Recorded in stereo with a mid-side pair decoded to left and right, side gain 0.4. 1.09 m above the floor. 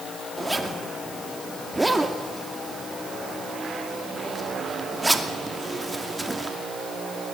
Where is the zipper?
10° right, 2.5 m.